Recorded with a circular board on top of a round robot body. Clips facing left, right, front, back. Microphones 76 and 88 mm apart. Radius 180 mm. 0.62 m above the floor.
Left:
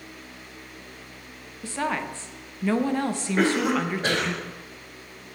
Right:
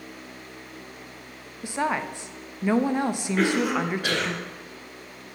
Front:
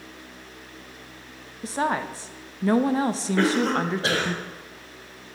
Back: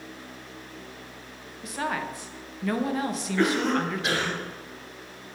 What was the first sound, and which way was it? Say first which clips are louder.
A woman speaking: right 2 dB, front 5 dB; 25° right.